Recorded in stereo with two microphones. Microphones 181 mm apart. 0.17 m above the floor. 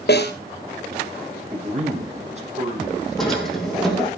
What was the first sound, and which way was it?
A snare drum, 65° left (ahead or behind).